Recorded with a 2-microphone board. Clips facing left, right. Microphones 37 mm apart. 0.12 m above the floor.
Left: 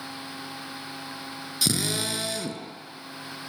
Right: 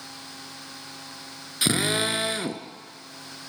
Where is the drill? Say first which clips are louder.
Right 4 dB; 35° right (ahead or behind), 1.4 m.